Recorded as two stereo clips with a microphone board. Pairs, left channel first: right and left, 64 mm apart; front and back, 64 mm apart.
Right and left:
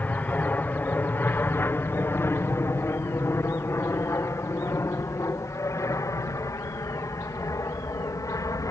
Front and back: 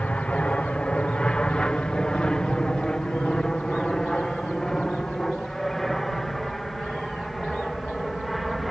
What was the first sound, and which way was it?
An aircraft, 55° right.